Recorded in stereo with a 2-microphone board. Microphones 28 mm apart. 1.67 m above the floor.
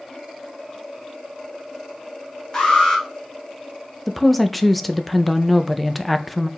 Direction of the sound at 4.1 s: Centre (ahead or behind).